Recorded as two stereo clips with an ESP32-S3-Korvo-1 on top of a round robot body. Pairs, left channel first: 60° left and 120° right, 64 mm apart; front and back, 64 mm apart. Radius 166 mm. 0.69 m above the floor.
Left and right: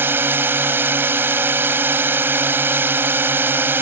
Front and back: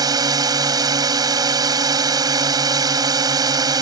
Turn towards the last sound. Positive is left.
turn(degrees=-175)